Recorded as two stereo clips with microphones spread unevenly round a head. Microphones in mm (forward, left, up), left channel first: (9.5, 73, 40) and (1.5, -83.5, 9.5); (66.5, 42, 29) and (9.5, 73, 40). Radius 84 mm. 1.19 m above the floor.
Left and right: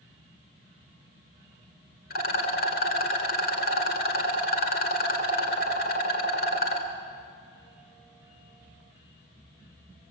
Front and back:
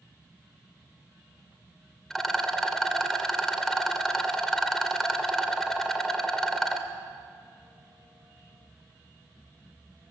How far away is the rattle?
About 2 m.